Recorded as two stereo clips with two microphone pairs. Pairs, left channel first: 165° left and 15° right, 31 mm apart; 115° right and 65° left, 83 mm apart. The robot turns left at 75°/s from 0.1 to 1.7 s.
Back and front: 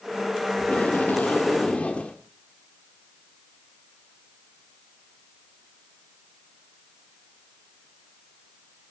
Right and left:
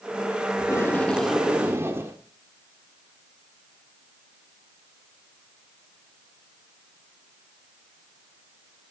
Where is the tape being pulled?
155° right, 2.5 m; by 2.2 s 120° left, 2.5 m.